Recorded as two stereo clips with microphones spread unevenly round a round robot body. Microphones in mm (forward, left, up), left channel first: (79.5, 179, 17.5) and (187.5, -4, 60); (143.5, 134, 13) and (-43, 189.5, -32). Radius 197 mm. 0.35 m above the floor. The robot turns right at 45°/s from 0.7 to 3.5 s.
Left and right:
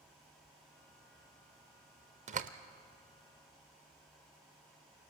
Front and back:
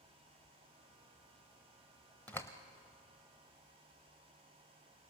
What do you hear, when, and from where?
2.3 s a door slam: 115° right, 0.6 m; by 2.5 s 105° right, 0.6 m